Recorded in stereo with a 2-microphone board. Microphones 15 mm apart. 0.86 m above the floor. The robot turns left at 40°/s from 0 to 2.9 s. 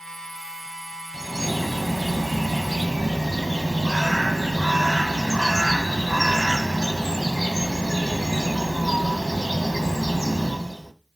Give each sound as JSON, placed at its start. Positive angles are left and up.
{"t": 1.1, "sound": "a bird", "azimuth_deg": -5, "distance_m": 1.0}